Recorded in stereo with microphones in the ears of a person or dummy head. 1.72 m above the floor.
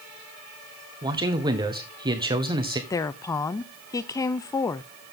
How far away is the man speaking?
About 1.5 m.